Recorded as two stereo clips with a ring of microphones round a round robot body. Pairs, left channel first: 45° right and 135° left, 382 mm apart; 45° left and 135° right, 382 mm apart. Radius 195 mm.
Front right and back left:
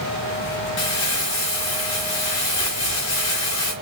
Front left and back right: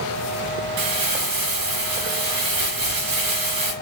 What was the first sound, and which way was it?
Crumpling, 100° right.